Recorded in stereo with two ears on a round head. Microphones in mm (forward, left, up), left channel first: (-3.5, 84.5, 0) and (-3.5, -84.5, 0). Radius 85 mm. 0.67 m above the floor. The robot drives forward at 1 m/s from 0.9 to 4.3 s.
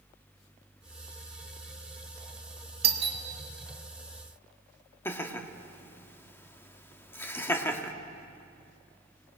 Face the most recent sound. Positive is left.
turn(degrees=10)  # may be behind; listen again after turning